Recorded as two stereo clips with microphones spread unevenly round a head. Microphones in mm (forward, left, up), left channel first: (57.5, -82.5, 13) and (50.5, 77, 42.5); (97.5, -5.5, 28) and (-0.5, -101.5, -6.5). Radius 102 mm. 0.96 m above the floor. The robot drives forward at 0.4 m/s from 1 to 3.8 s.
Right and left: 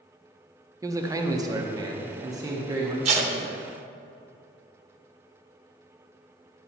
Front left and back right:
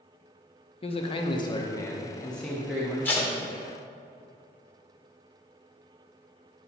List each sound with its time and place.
0.8 s a man speaking: 25° left, 0.7 m; by 3.0 s 165° left, 0.8 m
3.0 s tape being pulled: 105° left, 0.7 m; by 3.3 s 115° left, 0.7 m